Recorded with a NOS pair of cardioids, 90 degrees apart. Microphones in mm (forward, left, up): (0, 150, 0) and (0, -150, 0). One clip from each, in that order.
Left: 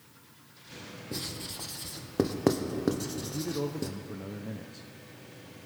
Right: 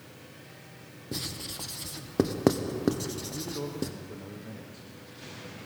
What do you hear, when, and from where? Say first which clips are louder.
1.1 s writing: right 2 dB; 10° right, 1.2 m
3.2 s a man speaking: left 2 dB; 25° left, 0.9 m